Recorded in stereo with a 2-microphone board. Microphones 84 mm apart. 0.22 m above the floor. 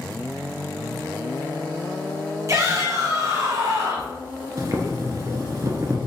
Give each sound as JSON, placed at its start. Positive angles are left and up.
{"t": 2.5, "sound": "a shout", "side_deg": -35, "distance_m": 1.5}
{"t": 4.6, "sound": "boiling", "side_deg": -40, "distance_m": 0.6}